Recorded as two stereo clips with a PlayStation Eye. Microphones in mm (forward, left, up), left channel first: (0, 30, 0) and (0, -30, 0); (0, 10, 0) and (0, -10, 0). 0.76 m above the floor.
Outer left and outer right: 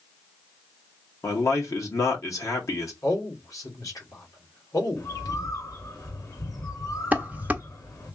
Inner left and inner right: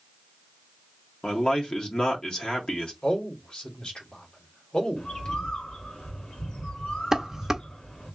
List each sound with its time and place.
1.2 s a man speaking: 60° left (ahead or behind), 1.8 m
3.0 s a man speaking: 65° left (ahead or behind), 2 m
5.0 s a bird: 70° left (ahead or behind), 2 m
7.1 s dishes clattering: 25° right (ahead or behind), 0.7 m